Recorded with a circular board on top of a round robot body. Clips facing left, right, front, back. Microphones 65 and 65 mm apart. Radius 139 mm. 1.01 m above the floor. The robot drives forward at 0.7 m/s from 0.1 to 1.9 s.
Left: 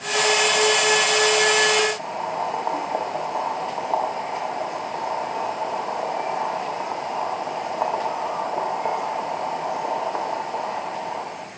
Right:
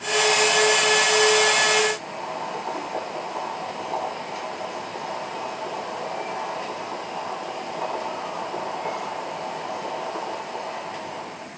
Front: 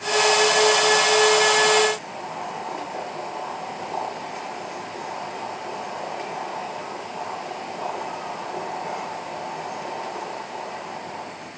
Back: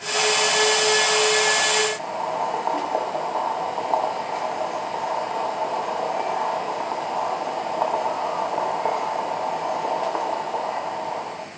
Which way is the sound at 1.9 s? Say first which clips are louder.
Left 4 dB, back 6 dB; 150° left.